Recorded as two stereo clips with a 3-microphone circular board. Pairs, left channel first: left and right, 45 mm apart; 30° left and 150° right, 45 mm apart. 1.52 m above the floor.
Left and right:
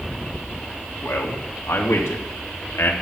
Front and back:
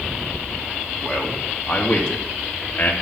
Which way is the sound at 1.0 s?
110° left.